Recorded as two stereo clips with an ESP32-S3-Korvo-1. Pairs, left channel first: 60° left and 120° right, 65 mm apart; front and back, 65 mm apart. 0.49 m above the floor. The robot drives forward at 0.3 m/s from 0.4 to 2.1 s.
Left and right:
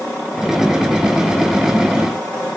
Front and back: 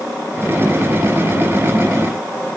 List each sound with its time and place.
Only background noise.